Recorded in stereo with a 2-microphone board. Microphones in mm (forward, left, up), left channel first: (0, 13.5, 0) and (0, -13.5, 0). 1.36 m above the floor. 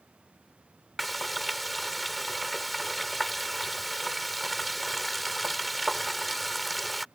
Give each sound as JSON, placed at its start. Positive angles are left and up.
{"t": 1.0, "sound": "frying", "side_deg": 0}